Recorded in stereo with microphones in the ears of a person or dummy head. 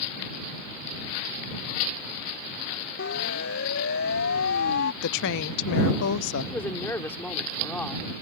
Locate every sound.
3.0 s a siren: 55° left (ahead or behind); by 4.9 s 60° left (ahead or behind)
5.0 s a woman speaking: 65° left (ahead or behind)
6.5 s a woman speaking: 10° left (ahead or behind)